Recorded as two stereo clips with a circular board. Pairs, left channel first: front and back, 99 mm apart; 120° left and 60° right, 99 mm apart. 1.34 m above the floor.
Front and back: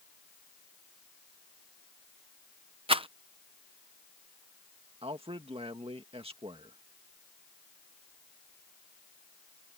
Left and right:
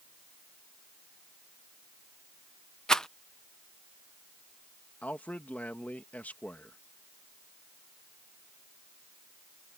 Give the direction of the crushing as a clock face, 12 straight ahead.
I don't hear crushing.